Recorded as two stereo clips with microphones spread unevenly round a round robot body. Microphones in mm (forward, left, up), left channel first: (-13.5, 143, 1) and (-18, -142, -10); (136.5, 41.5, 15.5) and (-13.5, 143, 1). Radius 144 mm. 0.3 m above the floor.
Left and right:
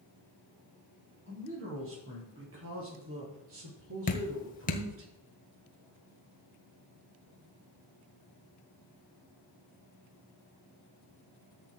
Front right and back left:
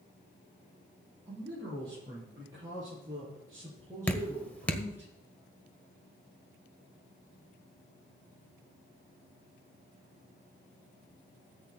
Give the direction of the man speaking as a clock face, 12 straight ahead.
5 o'clock.